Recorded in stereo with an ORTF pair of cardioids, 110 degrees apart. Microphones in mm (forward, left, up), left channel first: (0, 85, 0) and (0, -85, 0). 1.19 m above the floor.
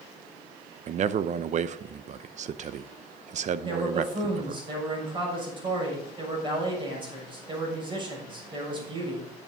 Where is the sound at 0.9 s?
45° right, 0.7 m.